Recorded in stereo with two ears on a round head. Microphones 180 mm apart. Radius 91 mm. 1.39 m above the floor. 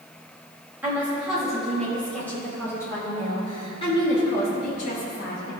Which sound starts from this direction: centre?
A woman speaking, at 0.8 s.